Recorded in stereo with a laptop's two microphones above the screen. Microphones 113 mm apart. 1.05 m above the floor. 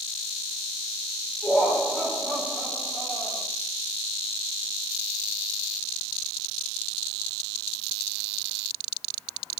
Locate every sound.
1.4 s laughter: 5° left (ahead or behind), 4 m